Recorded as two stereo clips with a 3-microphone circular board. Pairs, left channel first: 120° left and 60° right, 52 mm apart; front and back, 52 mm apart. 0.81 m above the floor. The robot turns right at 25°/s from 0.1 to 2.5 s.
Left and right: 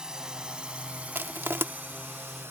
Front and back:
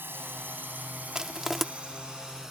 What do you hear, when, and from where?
0.0 s a drone: 135° right; by 2.5 s 95° right
1.1 s crushing: 100° right; by 1.6 s 90° right